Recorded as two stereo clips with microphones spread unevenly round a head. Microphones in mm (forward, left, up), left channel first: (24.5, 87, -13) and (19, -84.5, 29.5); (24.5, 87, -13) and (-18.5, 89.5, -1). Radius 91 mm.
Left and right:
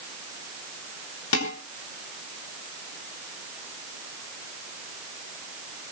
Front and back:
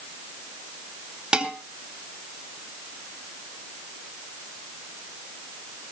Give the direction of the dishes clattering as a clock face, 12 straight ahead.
8 o'clock.